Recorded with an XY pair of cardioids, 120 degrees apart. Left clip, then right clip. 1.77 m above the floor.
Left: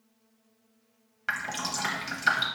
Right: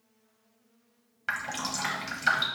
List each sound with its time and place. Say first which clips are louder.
1.3 s dripping: left 1 dB; straight ahead, 0.8 m